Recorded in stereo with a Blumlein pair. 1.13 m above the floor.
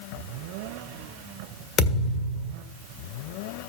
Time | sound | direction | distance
1.8 | a thud | 20° left | 1.6 m